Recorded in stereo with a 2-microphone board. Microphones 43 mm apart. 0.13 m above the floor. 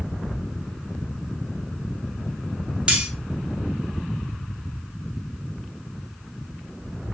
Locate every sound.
2.9 s cutlery clinking: 20° right (ahead or behind), 0.7 m